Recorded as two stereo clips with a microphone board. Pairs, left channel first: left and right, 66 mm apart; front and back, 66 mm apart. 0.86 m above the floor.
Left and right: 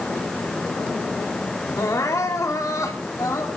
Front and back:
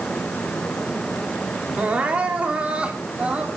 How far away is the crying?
About 2.5 m.